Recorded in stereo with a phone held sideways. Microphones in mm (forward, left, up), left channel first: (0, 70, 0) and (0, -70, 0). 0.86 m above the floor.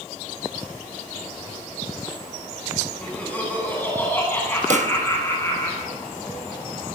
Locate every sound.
3.0 s laughter: 10° left (ahead or behind), 9.5 m; by 5.7 s 20° left (ahead or behind), 10.5 m
4.7 s a pop: 60° right (ahead or behind), 1.0 m